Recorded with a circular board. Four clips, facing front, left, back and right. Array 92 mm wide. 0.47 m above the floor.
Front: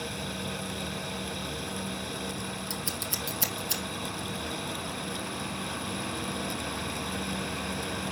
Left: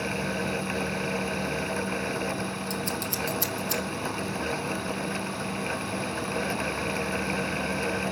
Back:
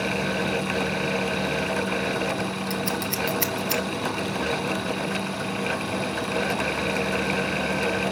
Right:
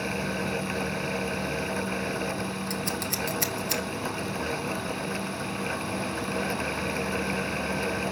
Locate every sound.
2.7 s scissors: 155° right, 1.8 m